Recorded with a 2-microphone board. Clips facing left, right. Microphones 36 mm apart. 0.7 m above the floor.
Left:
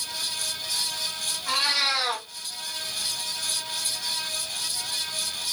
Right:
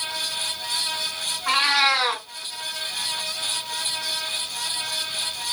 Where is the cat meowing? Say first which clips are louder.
Right 6 dB; 55° right (ahead or behind), 1.8 m.